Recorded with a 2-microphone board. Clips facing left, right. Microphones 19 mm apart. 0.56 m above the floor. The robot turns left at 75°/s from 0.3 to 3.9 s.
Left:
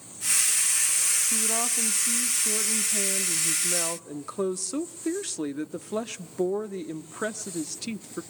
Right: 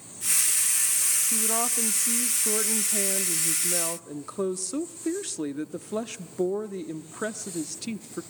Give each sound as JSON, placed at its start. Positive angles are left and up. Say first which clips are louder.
{"t": 1.3, "sound": "a woman speaking", "louder": "even", "side_deg": 0, "distance_m": 0.7}